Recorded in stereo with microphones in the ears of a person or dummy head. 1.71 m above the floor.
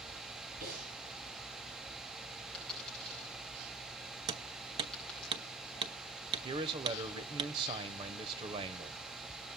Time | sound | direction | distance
0.6 | breathing | 55° right (ahead or behind) | 9.5 m
2.5 | a dropped coin | centre (ahead or behind) | 8 m
4.3 | hammering | 30° right (ahead or behind) | 0.8 m
6.4 | a man speaking | 35° right (ahead or behind) | 1.2 m